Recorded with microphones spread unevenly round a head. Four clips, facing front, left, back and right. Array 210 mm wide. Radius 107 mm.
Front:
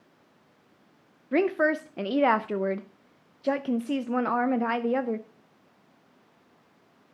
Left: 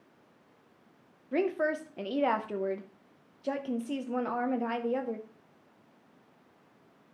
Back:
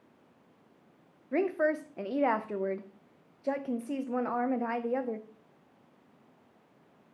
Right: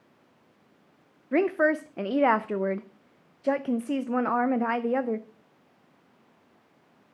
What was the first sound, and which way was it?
A woman speaking, 40° right.